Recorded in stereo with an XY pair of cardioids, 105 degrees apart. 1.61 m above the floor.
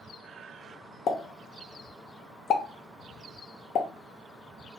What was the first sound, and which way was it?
A pop, 65° left.